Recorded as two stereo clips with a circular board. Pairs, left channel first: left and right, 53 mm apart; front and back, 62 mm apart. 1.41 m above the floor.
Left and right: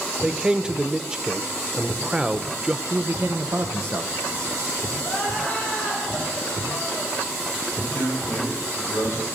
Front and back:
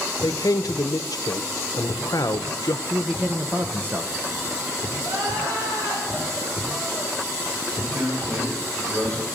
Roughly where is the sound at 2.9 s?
Behind right.